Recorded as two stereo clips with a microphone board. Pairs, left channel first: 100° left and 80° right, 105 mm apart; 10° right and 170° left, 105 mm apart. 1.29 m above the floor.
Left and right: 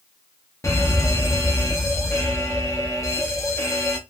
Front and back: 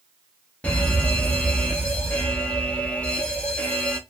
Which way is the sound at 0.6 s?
60° left.